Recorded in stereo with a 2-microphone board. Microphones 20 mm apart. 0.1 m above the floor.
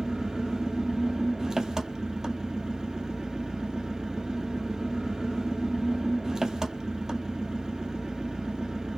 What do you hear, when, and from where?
0.0 s an engine running: 35° right (ahead or behind), 1.0 m